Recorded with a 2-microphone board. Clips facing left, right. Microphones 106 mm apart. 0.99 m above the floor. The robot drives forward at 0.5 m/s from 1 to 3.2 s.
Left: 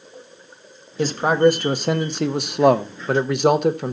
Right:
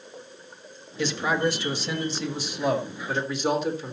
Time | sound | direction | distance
1.0 | a man speaking | 40° left (ahead or behind) | 1.4 m